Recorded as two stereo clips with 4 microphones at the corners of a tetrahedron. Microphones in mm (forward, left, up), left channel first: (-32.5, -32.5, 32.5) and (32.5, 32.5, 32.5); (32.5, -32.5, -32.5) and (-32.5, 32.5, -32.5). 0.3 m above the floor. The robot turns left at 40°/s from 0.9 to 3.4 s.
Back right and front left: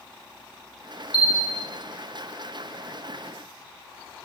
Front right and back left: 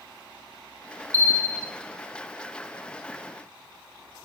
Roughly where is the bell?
Ahead.